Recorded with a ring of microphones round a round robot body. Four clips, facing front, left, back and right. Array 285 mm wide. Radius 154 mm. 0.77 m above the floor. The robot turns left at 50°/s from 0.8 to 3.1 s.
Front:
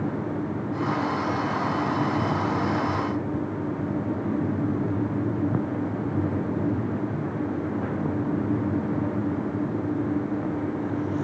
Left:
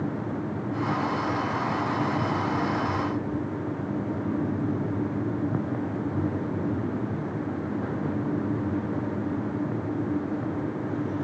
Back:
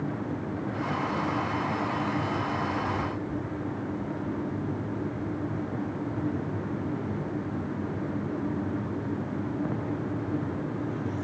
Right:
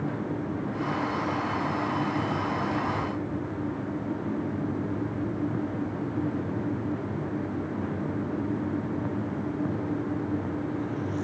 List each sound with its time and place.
Only background noise.